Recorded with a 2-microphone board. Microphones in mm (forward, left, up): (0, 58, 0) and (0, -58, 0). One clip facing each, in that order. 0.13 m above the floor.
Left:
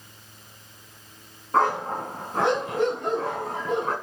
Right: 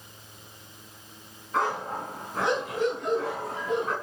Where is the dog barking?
50° left (ahead or behind), 5 m.